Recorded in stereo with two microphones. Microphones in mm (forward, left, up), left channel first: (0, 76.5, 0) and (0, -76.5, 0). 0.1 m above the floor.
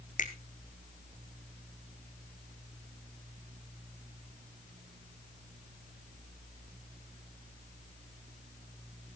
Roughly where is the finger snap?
Left.